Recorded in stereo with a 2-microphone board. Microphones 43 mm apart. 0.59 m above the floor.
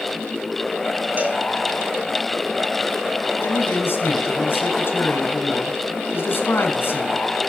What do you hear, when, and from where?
1.2 s a cowbell: 40° right (ahead or behind), 3.5 m
3.4 s a man speaking: 60° left (ahead or behind), 5 m